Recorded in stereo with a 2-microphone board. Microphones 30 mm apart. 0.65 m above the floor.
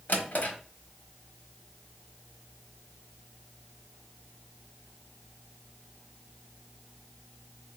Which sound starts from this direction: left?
A drawer, at 0.1 s.